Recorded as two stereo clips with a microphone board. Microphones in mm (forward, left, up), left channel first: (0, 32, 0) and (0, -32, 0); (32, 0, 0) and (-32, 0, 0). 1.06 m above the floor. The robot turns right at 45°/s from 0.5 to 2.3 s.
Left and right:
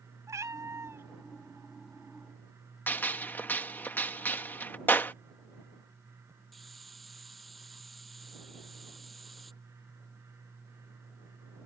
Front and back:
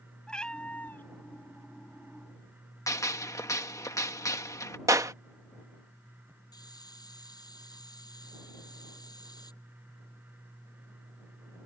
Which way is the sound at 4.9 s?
145° left.